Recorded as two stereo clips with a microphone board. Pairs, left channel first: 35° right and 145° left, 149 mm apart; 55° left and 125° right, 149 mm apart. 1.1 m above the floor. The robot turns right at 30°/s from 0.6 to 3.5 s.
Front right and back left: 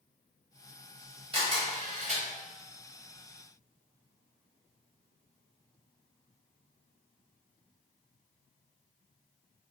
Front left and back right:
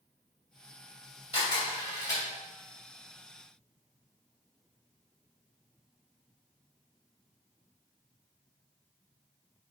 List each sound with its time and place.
1.3 s a camera shutter: 100° left, 1.2 m; by 2.2 s 130° left, 1.2 m